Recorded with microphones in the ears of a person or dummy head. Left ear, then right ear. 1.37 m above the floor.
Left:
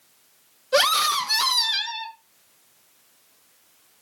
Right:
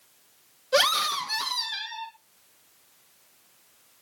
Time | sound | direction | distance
0.7 | a scream | centre (ahead or behind) | 0.9 m